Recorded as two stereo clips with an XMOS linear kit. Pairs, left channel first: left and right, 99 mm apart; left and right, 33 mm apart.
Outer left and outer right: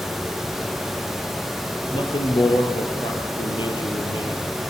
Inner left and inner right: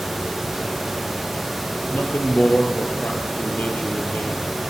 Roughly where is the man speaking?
Left.